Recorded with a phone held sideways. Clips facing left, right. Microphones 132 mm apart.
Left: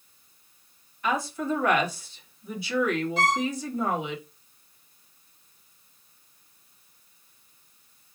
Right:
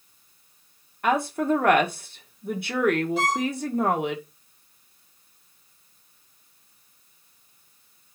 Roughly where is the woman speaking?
Right.